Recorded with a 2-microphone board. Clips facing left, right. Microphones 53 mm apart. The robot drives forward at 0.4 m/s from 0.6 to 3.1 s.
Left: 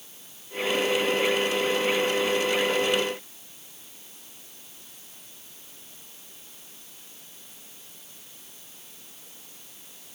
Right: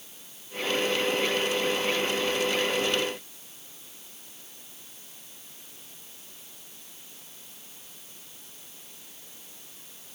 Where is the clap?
No clap in this recording.